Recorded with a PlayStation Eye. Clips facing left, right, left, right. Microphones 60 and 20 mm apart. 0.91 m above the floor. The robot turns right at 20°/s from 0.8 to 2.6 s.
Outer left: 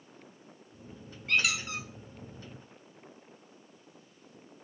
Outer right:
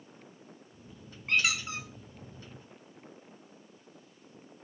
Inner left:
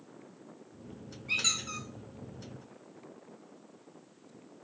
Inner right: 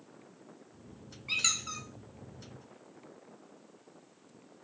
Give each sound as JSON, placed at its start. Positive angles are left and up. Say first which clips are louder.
{"t": 1.3, "sound": "a squeak", "louder": "even, inner left 1 dB", "side_deg": -30, "distance_m": 0.9}